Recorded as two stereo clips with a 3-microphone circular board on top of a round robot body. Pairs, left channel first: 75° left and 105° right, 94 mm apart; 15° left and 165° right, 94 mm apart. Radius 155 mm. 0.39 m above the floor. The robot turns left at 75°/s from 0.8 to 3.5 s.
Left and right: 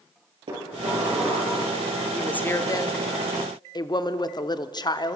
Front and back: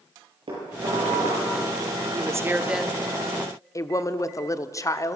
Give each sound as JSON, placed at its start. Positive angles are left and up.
{"t": 0.5, "sound": "dishes clattering", "azimuth_deg": -130, "distance_m": 10.0}
{"t": 2.1, "sound": "a woman speaking", "azimuth_deg": 160, "distance_m": 1.3}